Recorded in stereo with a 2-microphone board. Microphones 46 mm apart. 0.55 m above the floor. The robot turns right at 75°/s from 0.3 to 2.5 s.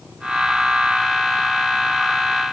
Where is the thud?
I don't hear a thud.